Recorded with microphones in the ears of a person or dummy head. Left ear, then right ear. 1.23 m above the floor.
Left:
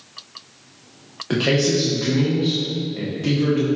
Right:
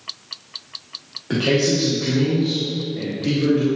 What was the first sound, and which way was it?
A man speaking, 25° left (ahead or behind).